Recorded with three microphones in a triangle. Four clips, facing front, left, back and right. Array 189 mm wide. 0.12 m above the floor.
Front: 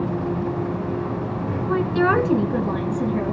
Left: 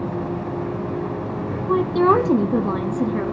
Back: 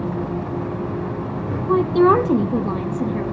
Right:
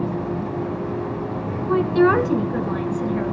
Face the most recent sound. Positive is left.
turn(degrees=85)